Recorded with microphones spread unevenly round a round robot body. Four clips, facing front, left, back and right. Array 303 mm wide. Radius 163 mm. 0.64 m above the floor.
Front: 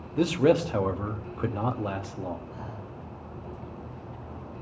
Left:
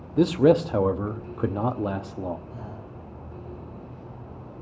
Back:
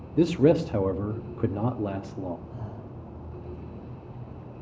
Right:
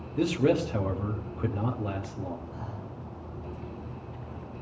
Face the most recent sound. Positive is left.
turn(degrees=150)